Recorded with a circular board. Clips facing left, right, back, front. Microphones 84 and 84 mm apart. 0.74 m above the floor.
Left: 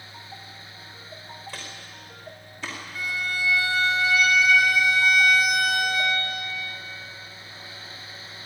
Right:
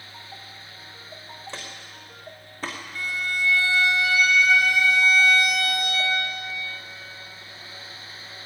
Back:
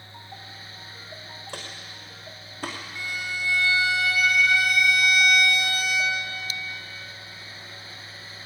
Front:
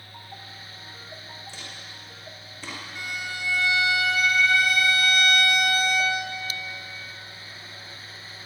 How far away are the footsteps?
About 3 m.